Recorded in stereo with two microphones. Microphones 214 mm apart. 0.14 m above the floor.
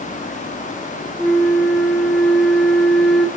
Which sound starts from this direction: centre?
A flute, at 1.2 s.